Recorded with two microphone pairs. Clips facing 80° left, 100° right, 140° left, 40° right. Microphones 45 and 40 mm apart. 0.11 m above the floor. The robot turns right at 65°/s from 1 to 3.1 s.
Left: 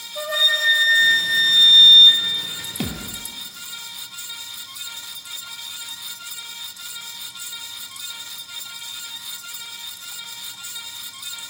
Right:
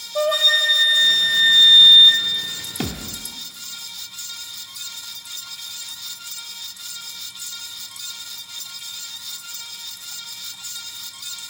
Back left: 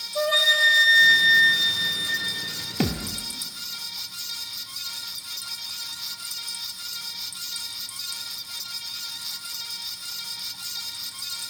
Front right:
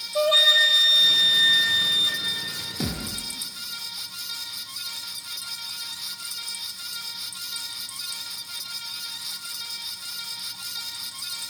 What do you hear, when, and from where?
0.1 s a flute: 90° right, 0.7 m; by 2.3 s 5° right, 0.7 m
2.8 s a thud: 170° left, 0.7 m; by 3.2 s 170° right, 0.7 m